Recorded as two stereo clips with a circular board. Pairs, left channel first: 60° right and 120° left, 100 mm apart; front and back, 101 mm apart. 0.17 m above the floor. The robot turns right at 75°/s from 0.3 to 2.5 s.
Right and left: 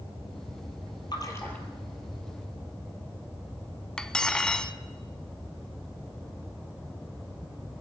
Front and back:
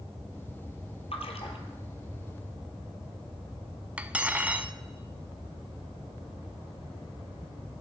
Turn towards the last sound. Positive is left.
turn(degrees=-130)